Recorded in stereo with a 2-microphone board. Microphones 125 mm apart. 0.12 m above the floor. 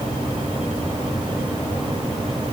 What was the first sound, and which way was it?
Only background noise.